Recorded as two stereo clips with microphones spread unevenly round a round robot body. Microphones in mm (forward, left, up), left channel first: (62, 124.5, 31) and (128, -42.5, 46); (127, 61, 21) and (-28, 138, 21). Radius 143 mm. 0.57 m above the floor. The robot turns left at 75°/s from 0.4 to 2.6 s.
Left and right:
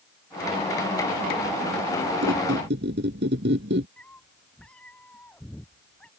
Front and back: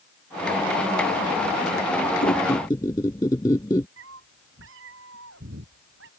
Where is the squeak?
70° right; by 3.9 s 100° right.